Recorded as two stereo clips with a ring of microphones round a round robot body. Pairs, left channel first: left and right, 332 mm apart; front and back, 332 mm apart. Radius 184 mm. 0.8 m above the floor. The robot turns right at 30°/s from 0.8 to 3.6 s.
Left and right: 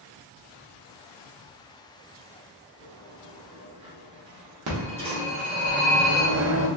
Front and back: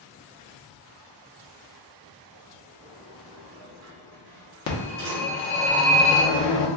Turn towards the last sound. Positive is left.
turn(degrees=-40)